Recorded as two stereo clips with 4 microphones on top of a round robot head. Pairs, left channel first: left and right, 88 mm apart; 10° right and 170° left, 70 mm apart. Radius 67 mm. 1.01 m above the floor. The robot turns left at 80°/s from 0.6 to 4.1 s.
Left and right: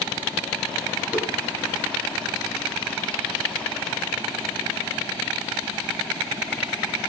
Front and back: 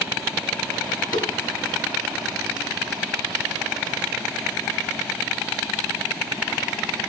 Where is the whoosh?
10° right, 2.5 m; by 1.3 s 25° right, 2.5 m.